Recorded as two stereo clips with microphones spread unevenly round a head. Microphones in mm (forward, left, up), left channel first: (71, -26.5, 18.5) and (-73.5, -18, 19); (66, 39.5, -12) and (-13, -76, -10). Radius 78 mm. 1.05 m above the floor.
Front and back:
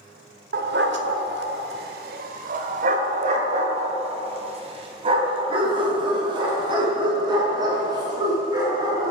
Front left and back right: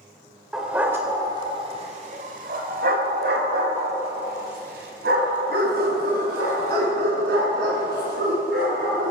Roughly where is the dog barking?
Behind left.